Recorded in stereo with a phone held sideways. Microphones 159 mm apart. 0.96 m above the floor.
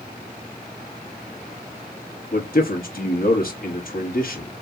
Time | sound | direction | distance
2.3 | a man speaking | 65° left (ahead or behind) | 1.2 m